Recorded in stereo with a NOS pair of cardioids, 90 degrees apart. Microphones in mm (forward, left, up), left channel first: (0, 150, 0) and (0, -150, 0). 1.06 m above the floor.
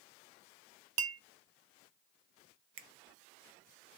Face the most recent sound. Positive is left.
turn(degrees=-45)